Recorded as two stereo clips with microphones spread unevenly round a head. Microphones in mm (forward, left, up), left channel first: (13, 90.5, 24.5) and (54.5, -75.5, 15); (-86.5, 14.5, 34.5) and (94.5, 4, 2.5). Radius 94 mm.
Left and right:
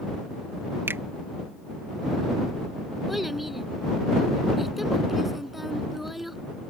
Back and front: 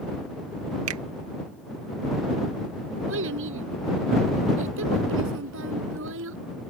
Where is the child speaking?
15° left.